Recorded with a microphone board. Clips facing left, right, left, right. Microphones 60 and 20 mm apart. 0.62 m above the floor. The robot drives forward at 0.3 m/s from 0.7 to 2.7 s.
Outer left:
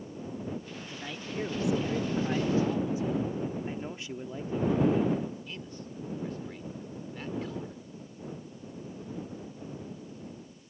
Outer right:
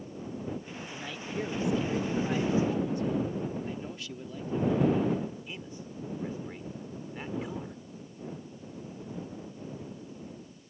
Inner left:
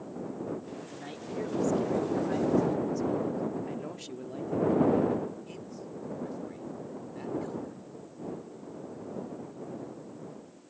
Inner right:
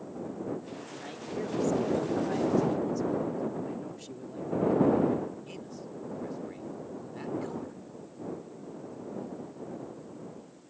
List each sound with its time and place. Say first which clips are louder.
0.8 s a man speaking: outer right 1 dB, even; 5° left (ahead or behind)
3.7 s a man speaking: outer left 1 dB, inner left 1 dB; 25° left (ahead or behind)
5.5 s a man speaking: even, even; 15° right (ahead or behind)